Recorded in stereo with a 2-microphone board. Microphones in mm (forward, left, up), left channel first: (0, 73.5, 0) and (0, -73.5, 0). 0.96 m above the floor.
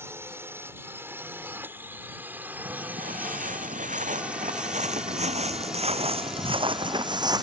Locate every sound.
0.0 s a drone: 15° right (ahead or behind); by 7.4 s centre (ahead or behind)
2.6 s footsteps: 70° right (ahead or behind); by 7.4 s 25° right (ahead or behind)